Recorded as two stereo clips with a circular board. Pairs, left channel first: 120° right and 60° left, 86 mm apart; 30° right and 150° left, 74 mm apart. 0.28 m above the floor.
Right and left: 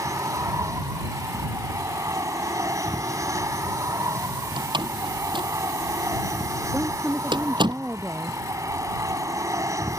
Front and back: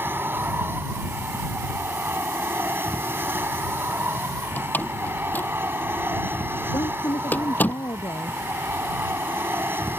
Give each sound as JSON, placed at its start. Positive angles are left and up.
{"t": 0.0, "sound": "an aircraft", "azimuth_deg": 100}
{"t": 4.6, "sound": "a door slam", "azimuth_deg": 35}
{"t": 6.7, "sound": "a woman speaking", "azimuth_deg": -15}